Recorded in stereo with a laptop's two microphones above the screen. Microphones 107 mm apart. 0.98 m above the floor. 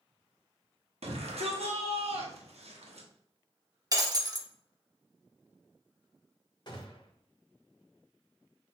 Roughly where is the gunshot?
Left.